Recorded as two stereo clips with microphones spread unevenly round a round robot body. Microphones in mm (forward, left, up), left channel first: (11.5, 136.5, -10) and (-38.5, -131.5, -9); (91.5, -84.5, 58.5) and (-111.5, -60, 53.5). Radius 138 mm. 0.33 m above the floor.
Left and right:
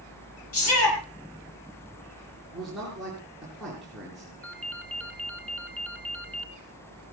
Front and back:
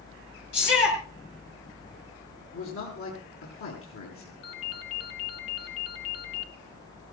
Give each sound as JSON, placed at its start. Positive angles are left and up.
{"t": 0.5, "sound": "a shout", "azimuth_deg": 40, "distance_m": 6.5}
{"t": 2.5, "sound": "a man speaking", "azimuth_deg": -10, "distance_m": 4.5}
{"t": 4.4, "sound": "a ringtone", "azimuth_deg": -5, "distance_m": 1.6}